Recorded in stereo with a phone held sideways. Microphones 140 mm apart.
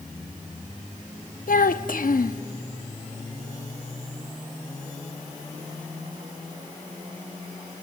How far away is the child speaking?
About 0.8 m.